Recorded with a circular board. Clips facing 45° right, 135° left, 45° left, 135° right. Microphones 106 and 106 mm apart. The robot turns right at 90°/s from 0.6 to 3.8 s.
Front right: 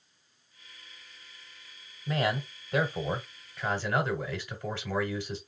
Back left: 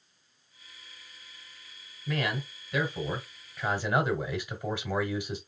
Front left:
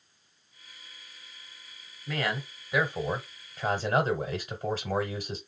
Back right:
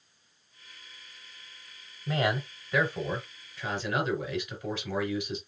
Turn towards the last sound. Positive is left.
turn(degrees=65)